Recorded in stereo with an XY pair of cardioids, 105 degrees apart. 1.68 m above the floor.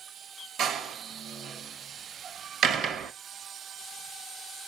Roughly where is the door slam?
Ahead right.